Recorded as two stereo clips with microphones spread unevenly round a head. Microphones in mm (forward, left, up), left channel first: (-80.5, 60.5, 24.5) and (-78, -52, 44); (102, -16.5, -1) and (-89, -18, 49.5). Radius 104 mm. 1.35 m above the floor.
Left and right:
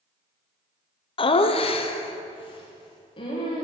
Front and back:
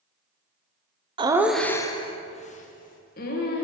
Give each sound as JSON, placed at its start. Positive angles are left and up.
{"t": 1.2, "sound": "laughter", "azimuth_deg": 110, "distance_m": 0.6}